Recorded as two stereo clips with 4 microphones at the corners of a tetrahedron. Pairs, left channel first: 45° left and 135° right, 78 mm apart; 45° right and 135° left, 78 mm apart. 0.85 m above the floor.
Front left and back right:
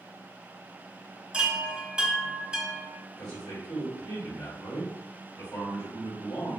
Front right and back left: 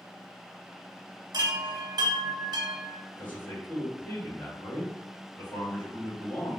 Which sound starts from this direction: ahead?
A man speaking, at 3.2 s.